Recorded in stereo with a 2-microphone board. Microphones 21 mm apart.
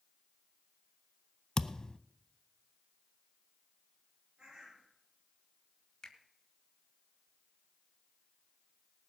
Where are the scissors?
I don't hear scissors.